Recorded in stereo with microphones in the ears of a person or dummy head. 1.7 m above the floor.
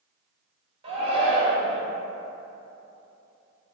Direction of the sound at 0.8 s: 35° right (ahead or behind).